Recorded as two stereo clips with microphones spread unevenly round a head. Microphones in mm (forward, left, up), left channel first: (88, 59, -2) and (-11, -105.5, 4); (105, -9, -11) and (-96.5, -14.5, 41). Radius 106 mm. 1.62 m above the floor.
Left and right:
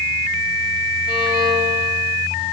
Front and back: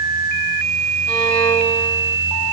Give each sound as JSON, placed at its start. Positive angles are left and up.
{"t": 1.1, "sound": "a violin", "azimuth_deg": 130, "distance_m": 4.0}